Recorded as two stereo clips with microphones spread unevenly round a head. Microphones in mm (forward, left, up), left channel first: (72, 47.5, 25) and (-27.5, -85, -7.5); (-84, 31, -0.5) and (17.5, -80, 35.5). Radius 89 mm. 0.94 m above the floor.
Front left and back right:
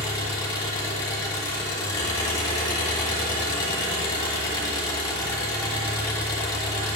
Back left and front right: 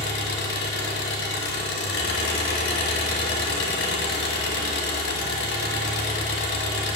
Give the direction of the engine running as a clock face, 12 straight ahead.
8 o'clock.